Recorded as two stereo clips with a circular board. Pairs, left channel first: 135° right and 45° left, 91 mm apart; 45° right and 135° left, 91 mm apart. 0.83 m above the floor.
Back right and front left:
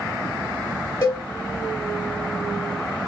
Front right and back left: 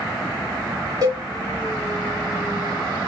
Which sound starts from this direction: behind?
A cowbell, at 1.0 s.